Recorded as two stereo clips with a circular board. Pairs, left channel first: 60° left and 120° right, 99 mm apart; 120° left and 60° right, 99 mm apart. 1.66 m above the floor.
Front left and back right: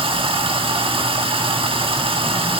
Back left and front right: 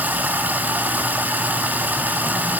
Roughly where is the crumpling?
I don't hear crumpling.